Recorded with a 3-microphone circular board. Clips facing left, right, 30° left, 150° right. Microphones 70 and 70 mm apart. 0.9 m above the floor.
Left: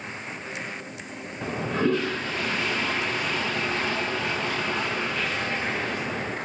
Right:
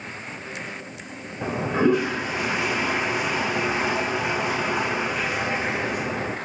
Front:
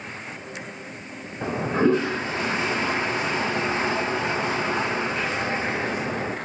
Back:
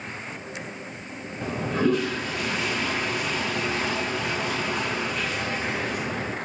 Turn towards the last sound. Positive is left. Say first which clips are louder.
# right 4 dB, front 3 dB
turn(degrees=-25)